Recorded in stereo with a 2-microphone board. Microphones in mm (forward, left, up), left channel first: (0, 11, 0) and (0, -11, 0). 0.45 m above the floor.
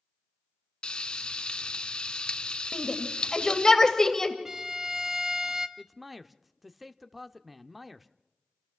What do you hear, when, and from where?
0.8 s frying: 45° left (ahead or behind), 0.8 m
2.7 s a shout: 25° left (ahead or behind), 2 m
4.5 s a violin: 20° right (ahead or behind), 0.9 m
5.8 s a man speaking: 5° right (ahead or behind), 0.7 m